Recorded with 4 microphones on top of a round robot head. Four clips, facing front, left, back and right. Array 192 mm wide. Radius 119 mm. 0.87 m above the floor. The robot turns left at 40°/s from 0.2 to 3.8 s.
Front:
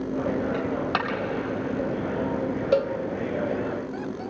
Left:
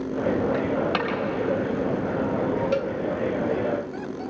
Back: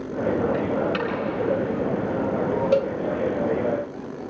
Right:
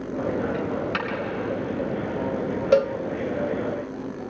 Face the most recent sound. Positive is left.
turn(degrees=-135)